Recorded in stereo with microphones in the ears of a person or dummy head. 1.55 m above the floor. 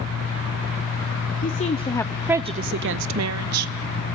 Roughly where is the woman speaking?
Left.